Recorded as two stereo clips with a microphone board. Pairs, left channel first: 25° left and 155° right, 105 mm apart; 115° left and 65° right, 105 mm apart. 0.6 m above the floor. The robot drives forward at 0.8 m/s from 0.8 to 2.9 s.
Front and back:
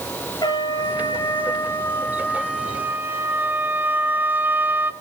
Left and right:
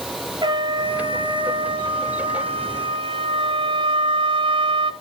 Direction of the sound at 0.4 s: 25° right.